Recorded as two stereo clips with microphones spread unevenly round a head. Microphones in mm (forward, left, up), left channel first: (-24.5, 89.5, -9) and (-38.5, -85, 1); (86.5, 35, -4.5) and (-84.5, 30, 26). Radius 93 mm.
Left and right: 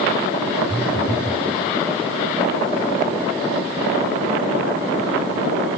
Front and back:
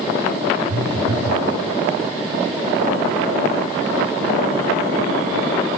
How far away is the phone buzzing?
About 0.6 m.